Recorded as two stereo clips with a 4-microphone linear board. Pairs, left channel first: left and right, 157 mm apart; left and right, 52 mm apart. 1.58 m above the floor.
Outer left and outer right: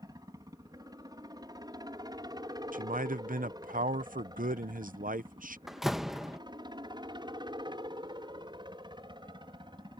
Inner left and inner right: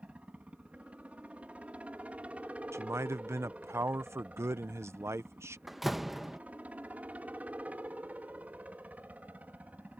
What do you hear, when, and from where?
0.0 s a helicopter: 25° right (ahead or behind); by 10.0 s 30° right (ahead or behind)
2.7 s a man speaking: 65° right (ahead or behind)
5.7 s a door slam: 5° right (ahead or behind)